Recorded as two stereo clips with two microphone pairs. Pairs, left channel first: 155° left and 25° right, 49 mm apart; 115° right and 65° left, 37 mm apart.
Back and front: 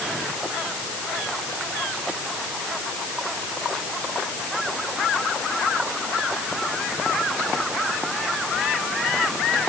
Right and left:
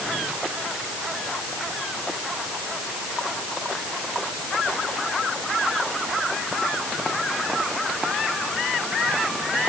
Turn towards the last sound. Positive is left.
No sound to turn to.